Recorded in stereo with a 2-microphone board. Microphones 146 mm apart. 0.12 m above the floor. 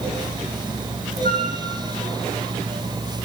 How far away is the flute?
About 5.5 m.